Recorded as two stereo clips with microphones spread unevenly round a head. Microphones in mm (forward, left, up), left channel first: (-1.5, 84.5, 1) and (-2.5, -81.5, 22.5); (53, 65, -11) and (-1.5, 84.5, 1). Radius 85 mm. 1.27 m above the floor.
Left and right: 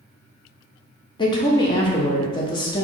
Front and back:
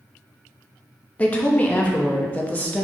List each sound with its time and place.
1.2 s a woman speaking: 35° left, 0.9 m